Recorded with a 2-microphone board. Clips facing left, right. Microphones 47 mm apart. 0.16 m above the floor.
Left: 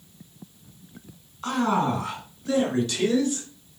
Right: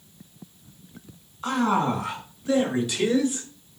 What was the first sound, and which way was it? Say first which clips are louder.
A man speaking: right 1 dB; 5° right (ahead or behind).